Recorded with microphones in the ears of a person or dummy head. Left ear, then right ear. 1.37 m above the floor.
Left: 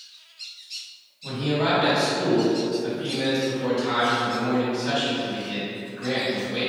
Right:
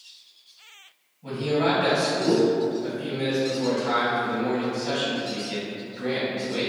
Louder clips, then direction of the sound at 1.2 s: Right 1 dB; 45° right (ahead or behind).